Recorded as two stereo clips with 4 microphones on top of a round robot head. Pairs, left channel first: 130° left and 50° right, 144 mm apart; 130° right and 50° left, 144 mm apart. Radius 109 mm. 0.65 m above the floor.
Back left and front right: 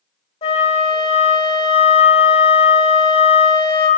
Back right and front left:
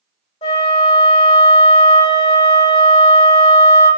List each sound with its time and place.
0.4 s a flute: straight behind, 0.6 m